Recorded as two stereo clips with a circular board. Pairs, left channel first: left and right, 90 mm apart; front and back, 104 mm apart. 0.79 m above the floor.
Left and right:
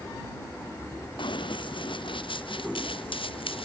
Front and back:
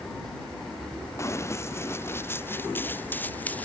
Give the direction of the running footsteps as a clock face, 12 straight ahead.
10 o'clock.